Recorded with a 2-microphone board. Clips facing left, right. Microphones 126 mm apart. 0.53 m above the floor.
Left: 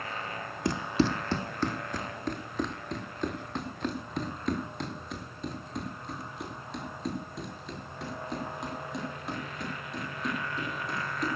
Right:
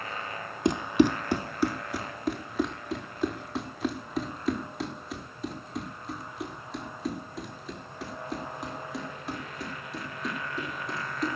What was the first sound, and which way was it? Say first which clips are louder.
Running footsteps: right 5 dB; 20° right (ahead or behind).